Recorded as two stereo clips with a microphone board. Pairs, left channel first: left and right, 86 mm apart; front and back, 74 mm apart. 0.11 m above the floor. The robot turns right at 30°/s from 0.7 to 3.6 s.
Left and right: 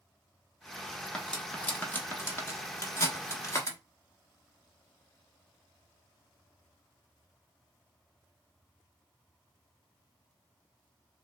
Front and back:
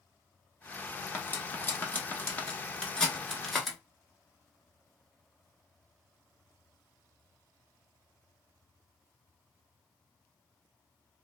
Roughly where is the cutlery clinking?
Ahead.